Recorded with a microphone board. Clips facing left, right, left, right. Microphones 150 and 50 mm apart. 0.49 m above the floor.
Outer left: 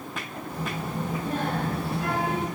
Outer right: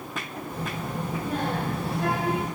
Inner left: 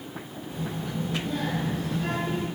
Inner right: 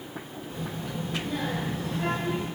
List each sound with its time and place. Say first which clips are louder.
0.5 s a child speaking: outer left 1 dB, inner left 2 dB; 10° left (ahead or behind), 1.4 m; by 2.5 s 45° right (ahead or behind), 1.2 m